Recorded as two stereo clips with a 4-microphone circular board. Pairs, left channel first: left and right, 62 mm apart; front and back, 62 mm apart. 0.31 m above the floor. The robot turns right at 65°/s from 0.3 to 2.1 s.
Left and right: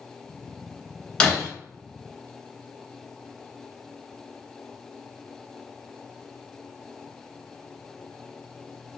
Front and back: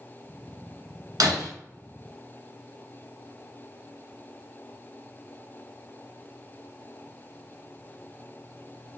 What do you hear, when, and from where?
1.2 s breaking glass: 165° left, 1.0 m; by 1.5 s 175° right, 1.0 m